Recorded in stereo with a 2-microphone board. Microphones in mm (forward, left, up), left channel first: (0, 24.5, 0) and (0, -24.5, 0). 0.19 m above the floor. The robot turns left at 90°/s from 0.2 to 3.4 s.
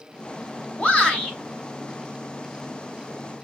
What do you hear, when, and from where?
0.8 s a shout: 25° left (ahead or behind), 1.2 m; by 1.4 s 5° left (ahead or behind), 1.2 m